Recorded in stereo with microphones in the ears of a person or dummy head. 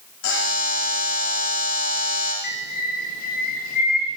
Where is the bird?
40° left (ahead or behind), 0.7 m.